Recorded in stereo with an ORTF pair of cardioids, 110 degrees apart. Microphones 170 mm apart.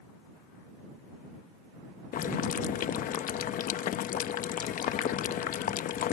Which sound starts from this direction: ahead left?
Boiling, at 2.1 s.